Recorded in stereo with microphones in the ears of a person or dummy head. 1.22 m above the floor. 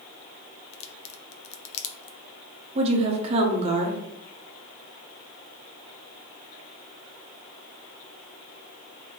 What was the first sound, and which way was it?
A crack, 30° left (ahead or behind).